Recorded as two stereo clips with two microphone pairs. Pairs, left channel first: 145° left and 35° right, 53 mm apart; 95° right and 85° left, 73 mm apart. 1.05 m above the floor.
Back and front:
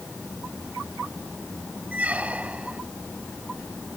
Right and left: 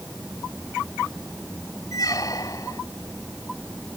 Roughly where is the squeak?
Right.